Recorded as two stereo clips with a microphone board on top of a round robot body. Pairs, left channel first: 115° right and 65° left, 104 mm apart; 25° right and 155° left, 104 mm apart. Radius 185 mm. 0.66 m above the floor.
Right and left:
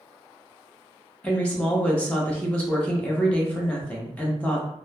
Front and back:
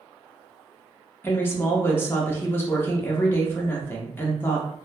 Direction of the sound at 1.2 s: 55° right.